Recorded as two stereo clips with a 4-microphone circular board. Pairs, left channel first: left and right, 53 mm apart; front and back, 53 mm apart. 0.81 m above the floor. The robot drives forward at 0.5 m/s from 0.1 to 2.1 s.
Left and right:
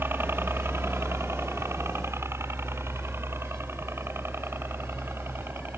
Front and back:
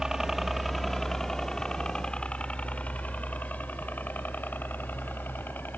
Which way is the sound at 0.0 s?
105° right.